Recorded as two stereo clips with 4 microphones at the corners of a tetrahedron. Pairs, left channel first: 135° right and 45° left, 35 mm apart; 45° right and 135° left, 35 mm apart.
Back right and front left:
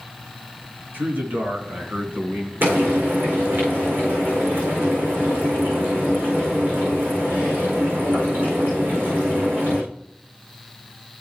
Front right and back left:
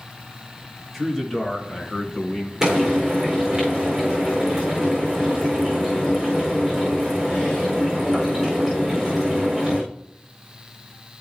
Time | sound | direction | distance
0.9 | a man speaking | 50° left | 3.5 m
2.6 | frying | 60° left | 5 m